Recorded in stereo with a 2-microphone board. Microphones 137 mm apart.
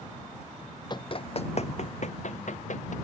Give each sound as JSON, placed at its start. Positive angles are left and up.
{"t": 0.9, "sound": "running footsteps", "side_deg": 35}